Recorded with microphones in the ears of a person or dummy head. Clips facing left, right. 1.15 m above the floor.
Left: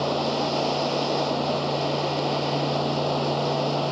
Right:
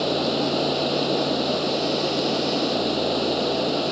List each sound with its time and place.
0.0 s running water: 20° right (ahead or behind)